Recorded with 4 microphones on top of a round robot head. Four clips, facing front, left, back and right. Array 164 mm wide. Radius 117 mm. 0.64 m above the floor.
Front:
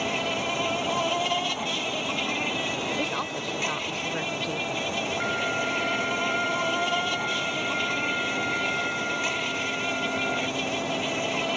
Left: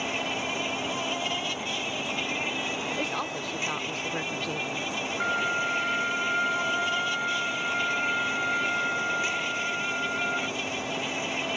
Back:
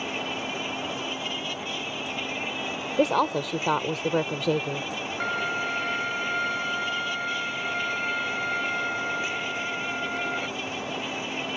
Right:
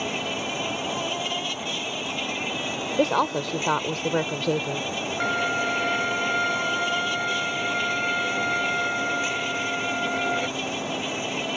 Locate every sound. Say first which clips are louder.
0.0 s an insect: right 2 dB, front 4 dB; 5° right
3.0 s a woman speaking: right 9 dB, back 7 dB; 135° right
5.2 s a violin: right 3 dB, back 2 dB; 90° right